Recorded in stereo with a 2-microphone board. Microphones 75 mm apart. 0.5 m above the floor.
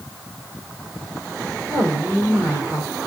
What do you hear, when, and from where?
1.7 s a woman speaking: 35° right (ahead or behind), 2.0 m